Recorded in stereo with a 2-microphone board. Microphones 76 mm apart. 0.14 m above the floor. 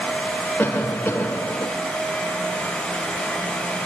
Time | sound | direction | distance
0.6 | a cough | 25° left (ahead or behind) | 3.5 m